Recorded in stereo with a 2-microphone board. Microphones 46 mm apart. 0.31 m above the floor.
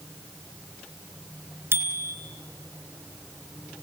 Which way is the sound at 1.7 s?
65° right (ahead or behind).